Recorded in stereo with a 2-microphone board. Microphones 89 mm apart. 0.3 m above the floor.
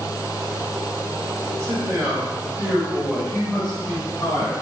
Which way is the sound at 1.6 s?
30° right (ahead or behind).